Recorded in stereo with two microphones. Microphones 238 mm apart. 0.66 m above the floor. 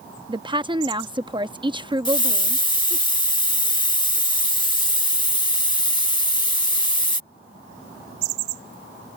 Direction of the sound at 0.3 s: 20° right (ahead or behind).